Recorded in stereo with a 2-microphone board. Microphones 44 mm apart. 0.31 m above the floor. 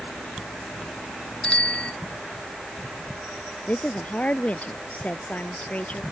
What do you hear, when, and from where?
1.4 s a bicycle bell: 30° left (ahead or behind)
3.7 s a woman speaking: 35° left (ahead or behind)